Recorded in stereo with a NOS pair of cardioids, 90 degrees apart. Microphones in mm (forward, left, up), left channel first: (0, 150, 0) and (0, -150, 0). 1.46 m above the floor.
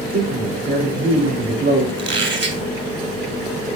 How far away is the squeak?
About 3 m.